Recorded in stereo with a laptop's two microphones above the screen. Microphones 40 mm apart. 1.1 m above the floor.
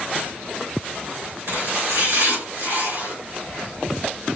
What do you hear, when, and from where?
1.5 s chopping: 65° right (ahead or behind), 4.5 m